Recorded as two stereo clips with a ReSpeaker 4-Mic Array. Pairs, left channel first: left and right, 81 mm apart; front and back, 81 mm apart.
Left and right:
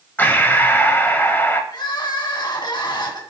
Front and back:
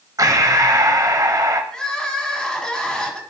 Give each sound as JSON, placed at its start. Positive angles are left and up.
{"t": 0.2, "sound": "breathing", "azimuth_deg": 150, "distance_m": 0.7}
{"t": 1.7, "sound": "crying", "azimuth_deg": 80, "distance_m": 1.4}